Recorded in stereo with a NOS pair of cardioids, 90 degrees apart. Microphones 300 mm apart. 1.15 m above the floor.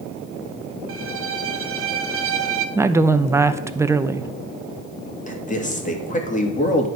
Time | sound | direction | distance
0.9 | a violin | 50° right | 1.2 m
2.8 | a woman speaking | 10° right | 0.8 m
5.3 | a man speaking | 25° left | 2.5 m